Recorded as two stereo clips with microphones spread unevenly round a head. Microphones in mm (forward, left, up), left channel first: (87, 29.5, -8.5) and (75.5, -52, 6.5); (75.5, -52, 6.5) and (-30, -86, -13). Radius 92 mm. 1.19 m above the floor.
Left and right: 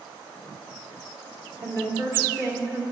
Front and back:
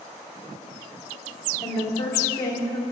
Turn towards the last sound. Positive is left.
turn(degrees=-40)